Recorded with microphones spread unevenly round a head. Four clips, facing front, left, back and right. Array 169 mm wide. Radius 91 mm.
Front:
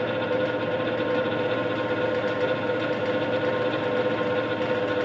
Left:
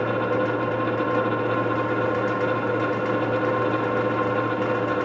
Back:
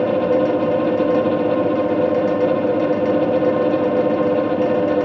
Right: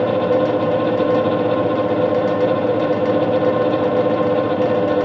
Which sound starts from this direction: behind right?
A fan, at 0.0 s.